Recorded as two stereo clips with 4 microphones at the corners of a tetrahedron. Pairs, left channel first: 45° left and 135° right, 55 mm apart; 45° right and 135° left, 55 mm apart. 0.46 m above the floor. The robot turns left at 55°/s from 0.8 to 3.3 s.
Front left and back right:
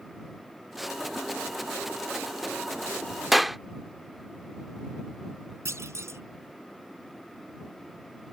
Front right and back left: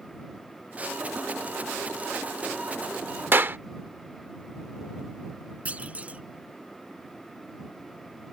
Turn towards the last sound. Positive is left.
turn(degrees=-160)